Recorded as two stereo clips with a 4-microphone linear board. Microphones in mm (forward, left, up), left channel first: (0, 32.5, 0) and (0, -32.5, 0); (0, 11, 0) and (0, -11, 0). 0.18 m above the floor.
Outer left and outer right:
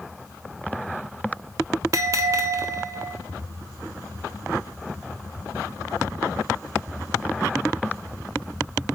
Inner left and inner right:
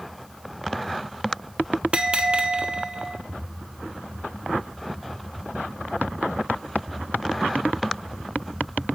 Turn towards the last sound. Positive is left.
turn(degrees=-60)  # may be behind; listen again after turning